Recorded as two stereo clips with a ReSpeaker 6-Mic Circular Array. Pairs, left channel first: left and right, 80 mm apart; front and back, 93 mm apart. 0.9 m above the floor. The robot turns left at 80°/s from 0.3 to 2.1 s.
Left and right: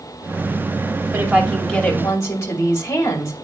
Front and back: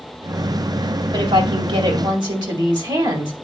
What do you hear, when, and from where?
1.1 s a woman speaking: 140° right, 2 m; by 3.3 s 145° left, 2 m